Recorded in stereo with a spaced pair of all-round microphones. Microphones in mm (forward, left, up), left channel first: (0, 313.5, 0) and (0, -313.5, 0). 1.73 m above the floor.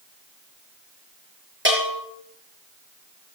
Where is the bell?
20° right (ahead or behind), 5 m.